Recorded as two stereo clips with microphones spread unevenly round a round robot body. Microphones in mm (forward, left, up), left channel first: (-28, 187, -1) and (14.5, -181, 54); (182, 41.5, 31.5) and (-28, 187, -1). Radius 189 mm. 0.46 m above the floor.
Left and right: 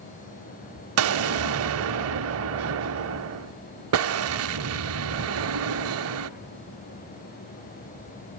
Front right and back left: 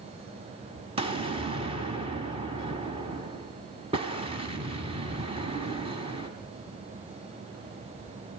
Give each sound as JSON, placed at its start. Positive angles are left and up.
{"t": 1.0, "sound": "an explosion", "azimuth_deg": -135, "distance_m": 0.7}